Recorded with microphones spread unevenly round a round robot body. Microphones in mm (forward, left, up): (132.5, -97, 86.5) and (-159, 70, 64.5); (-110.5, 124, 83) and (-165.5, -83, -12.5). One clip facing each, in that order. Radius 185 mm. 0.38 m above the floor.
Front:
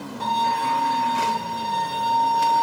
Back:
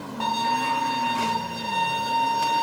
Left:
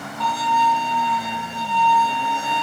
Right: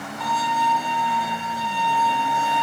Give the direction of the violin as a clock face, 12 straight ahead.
10 o'clock.